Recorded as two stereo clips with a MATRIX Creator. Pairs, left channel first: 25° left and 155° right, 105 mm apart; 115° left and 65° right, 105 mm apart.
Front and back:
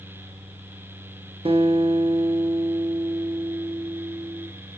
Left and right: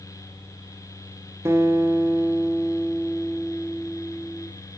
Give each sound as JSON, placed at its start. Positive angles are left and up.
{"t": 1.4, "sound": "a guitar", "azimuth_deg": -130, "distance_m": 1.1}